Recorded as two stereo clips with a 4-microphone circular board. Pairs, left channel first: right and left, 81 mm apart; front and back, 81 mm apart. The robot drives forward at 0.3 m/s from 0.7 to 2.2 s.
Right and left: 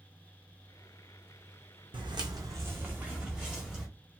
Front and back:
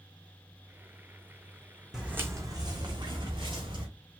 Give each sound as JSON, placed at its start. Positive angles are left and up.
{"t": 1.9, "sound": "footsteps", "azimuth_deg": 95, "distance_m": 0.9}